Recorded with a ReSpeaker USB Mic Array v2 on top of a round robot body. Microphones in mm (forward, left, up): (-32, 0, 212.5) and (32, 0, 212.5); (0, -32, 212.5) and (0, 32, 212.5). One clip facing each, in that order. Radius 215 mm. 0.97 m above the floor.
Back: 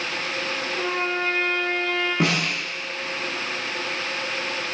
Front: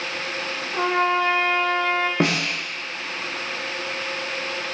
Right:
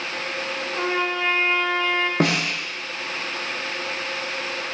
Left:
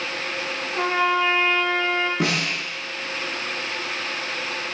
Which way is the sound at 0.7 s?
Straight ahead.